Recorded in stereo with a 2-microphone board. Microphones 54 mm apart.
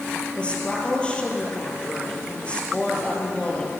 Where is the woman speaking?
20° left (ahead or behind), 5 m.